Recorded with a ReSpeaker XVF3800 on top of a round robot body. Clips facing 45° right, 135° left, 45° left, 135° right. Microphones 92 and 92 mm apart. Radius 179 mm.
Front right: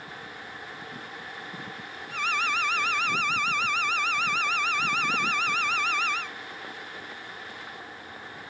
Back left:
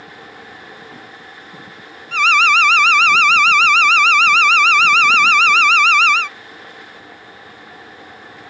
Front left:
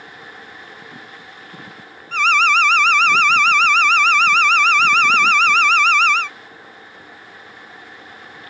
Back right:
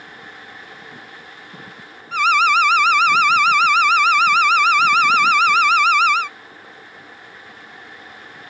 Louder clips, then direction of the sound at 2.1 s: Back left 14 dB, back right 1 dB; 145° left.